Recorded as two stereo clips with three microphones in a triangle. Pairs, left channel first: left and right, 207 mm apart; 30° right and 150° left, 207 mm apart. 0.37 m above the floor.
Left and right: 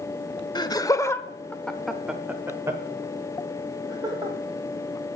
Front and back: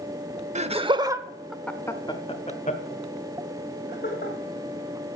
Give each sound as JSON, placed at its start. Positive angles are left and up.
{"t": 0.6, "sound": "laughter", "azimuth_deg": 140, "distance_m": 0.9}